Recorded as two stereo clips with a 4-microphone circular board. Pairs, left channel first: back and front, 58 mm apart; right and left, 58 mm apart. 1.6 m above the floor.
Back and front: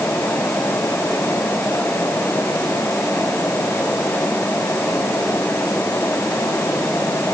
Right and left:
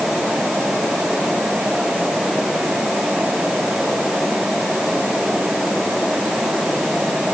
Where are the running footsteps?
I don't hear running footsteps.